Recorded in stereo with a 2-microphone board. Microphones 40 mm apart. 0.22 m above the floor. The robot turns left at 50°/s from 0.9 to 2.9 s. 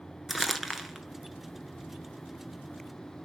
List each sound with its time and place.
0.3 s crumpling: 5° right (ahead or behind), 1.5 m; by 1.0 s 10° right (ahead or behind), 1.5 m